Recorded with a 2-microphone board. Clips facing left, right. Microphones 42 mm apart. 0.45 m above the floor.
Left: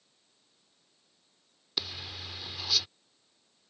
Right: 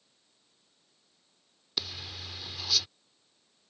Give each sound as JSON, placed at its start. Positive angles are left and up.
{"t": 1.8, "sound": "a zipper", "side_deg": 10}